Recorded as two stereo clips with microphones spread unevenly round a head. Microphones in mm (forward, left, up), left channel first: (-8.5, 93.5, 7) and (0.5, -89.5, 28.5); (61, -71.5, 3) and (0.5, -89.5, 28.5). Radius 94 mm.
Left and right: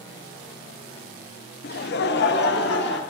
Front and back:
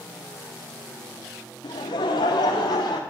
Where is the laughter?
60° left, 0.6 m; by 3.0 s 55° left, 1.5 m.